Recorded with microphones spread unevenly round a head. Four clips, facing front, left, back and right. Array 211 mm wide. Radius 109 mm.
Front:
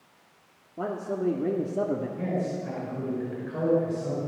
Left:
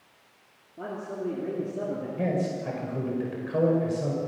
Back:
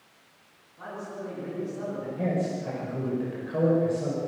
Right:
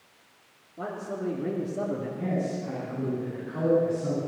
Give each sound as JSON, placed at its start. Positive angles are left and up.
{"t": 0.8, "sound": "a man speaking", "azimuth_deg": 0, "distance_m": 3.0}
{"t": 2.2, "sound": "a man speaking", "azimuth_deg": 105, "distance_m": 5.0}